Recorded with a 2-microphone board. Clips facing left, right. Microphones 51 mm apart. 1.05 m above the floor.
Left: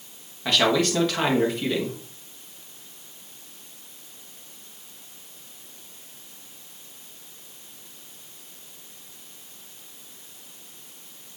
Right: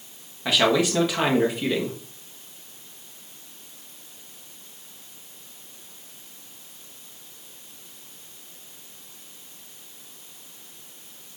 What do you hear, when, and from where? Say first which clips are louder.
0.5 s a man speaking: right 1 dB; 10° right (ahead or behind), 1.4 m